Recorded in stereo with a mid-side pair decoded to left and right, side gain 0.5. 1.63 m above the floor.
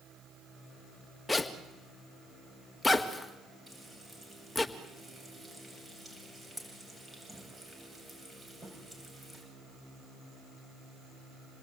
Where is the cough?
No cough in this recording.